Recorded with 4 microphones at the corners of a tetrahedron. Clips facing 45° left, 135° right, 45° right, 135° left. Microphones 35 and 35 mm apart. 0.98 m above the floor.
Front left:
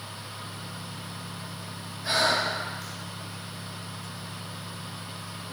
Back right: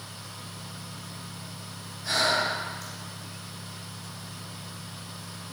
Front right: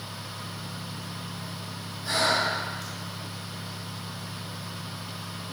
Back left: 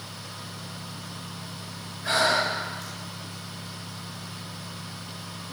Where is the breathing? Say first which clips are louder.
Front left 1 dB, back left 2 dB; 95° left, 2 m.